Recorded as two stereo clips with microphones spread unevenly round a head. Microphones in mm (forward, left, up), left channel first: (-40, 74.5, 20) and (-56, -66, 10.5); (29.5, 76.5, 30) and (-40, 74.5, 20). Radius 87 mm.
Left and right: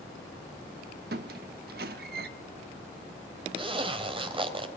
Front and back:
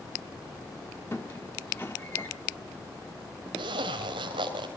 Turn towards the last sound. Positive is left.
turn(degrees=-150)